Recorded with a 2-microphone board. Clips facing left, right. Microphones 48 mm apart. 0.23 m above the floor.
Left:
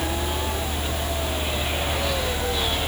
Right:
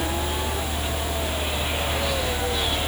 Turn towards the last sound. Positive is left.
No sound to turn to.